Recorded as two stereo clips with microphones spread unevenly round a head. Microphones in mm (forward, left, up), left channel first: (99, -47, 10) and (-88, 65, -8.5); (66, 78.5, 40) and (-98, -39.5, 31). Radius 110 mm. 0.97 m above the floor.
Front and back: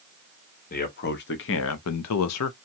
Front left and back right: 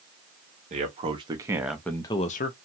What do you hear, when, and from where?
0.7 s a man speaking: 85° right, 0.9 m; by 2.5 s 5° right, 0.5 m